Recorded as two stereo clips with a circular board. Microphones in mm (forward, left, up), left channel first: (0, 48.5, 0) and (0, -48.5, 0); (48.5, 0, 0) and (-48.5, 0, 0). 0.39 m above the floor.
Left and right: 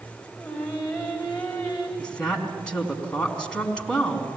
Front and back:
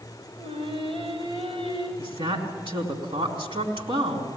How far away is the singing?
About 5.5 m.